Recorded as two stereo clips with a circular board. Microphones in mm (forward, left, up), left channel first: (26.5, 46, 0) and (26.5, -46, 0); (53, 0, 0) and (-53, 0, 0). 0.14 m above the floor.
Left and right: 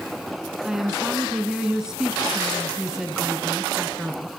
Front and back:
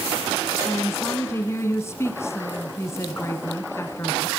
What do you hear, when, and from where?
0.6 s a woman speaking: 15° right, 1.1 m